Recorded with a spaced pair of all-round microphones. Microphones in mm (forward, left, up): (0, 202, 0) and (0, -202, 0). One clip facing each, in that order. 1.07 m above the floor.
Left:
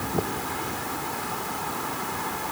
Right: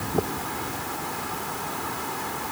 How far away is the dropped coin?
No dropped coin in this recording.